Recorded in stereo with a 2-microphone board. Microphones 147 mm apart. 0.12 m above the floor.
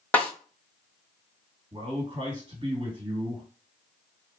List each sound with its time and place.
0.1 s a snare drum: 10° left (ahead or behind), 1.2 m
1.7 s a man speaking: 35° right (ahead or behind), 2.5 m